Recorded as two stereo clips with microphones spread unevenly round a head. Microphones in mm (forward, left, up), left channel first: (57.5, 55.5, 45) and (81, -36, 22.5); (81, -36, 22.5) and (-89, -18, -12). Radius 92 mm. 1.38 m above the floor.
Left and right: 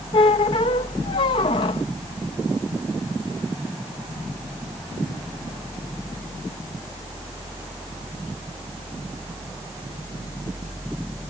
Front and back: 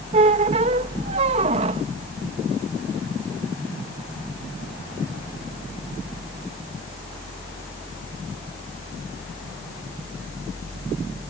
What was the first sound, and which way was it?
A squeak, 115° left.